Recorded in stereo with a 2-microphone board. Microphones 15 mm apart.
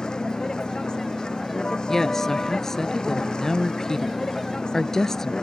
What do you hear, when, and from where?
0.0 s a vehicle: 65° left (ahead or behind)
1.9 s a woman speaking: 35° left (ahead or behind)